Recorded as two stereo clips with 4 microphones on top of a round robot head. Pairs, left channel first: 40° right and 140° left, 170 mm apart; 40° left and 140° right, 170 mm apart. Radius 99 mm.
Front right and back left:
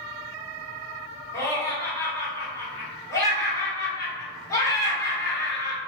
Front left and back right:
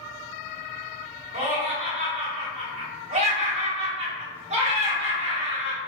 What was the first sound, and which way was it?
Laughter, 105° right.